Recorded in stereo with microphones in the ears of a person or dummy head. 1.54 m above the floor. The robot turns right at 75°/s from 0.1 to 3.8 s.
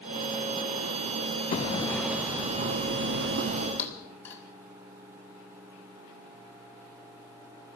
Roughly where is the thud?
Centre.